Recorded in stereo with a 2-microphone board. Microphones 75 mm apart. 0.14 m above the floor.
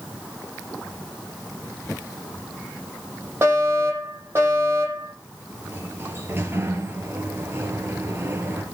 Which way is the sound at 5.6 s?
30° right (ahead or behind).